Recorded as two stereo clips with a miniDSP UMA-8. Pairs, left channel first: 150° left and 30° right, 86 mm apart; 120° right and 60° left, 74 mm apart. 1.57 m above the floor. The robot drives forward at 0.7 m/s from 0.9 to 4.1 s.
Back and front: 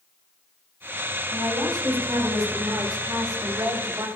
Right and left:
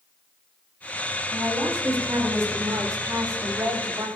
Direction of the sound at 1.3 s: 15° left.